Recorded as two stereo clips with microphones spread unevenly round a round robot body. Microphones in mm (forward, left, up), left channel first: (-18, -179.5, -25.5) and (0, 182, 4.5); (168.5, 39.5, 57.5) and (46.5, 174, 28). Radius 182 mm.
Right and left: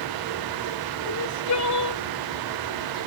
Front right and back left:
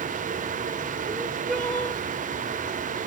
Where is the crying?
140° right.